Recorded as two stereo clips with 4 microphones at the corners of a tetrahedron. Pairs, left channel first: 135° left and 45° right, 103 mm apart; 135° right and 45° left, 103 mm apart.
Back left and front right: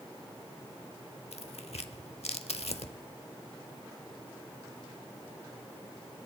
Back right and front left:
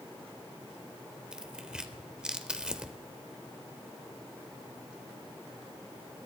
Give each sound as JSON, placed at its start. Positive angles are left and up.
{"t": 1.3, "sound": "tearing paper", "azimuth_deg": 125, "distance_m": 0.8}